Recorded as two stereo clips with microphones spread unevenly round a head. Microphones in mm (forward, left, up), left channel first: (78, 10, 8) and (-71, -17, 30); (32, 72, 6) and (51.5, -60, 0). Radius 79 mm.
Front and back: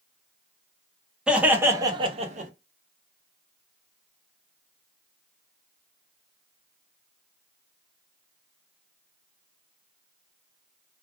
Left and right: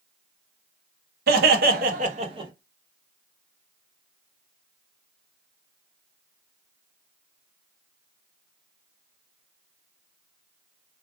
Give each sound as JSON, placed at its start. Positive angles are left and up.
{"t": 1.3, "sound": "laughter", "azimuth_deg": -90, "distance_m": 0.8}